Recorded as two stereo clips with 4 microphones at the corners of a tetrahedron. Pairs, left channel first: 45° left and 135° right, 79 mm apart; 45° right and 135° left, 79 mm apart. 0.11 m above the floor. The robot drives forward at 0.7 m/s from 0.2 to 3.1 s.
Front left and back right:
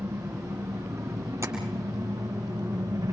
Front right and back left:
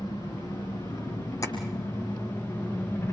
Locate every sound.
0.0 s an engine running: 80° right, 6 m; by 3.1 s 100° right, 6 m
1.4 s tapping: 90° right, 4.5 m